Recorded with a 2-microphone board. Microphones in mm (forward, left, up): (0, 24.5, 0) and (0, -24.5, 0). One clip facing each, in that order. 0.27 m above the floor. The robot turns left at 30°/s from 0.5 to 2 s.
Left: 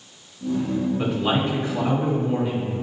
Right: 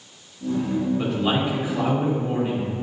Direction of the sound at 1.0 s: 10° left.